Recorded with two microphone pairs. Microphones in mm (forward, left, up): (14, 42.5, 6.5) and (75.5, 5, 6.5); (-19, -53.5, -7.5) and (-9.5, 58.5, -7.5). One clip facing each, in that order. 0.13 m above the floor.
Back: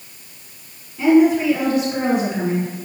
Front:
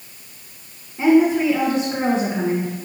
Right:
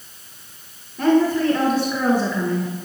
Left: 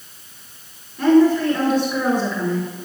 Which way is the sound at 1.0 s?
20° right.